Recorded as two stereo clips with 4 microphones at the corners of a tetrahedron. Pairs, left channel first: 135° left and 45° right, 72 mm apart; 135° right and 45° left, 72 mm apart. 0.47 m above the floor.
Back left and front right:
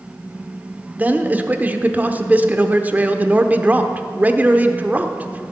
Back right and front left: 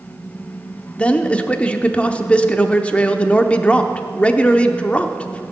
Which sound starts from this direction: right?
A man speaking, at 1.0 s.